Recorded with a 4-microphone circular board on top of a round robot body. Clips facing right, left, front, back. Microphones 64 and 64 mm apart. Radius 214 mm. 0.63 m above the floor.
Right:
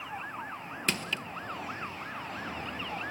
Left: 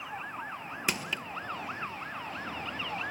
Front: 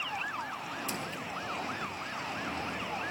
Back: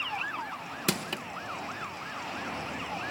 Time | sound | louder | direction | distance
0.9 | crushing | right 1 dB, back 5 dB | 170° left | 1.5 m